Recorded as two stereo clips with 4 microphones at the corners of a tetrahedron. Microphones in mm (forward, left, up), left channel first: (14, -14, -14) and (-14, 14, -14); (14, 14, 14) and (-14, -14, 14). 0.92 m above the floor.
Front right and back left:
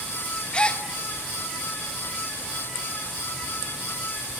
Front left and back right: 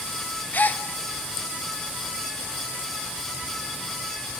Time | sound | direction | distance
0.5 | a gasp | 10° left | 1.0 m